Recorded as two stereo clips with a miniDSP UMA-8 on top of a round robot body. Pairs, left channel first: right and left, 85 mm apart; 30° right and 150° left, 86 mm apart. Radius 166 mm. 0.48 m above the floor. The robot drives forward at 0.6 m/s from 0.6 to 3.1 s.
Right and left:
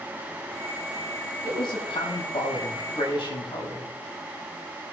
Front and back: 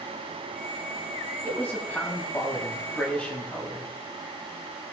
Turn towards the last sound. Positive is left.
turn(degrees=-105)